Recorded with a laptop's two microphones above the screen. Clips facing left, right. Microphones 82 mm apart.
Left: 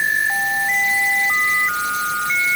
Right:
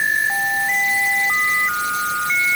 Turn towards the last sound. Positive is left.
No sound to turn to.